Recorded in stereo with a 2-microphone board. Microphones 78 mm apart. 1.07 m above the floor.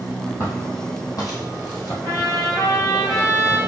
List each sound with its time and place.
0.4 s footsteps: 35° left (ahead or behind), 1.7 m; by 1.9 s 55° left (ahead or behind), 2 m
2.0 s a trumpet: 45° left (ahead or behind), 1.7 m